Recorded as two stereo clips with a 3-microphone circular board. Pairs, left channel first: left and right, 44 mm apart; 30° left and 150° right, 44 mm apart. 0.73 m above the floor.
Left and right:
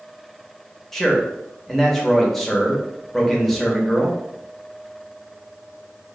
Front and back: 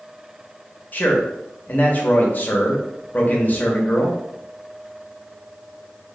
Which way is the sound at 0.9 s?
10° left.